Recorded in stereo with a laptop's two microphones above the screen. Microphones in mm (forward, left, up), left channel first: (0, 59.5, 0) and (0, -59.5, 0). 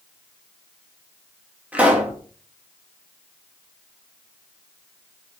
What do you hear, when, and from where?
1.7 s a pop: 10° right (ahead or behind), 2.0 m